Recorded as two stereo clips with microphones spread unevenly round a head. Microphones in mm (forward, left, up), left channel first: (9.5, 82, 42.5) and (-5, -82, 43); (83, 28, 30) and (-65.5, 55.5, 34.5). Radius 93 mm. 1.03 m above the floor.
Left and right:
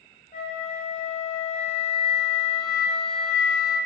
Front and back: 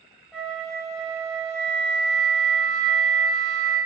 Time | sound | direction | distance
0.3 | a flute | 75° left | 0.7 m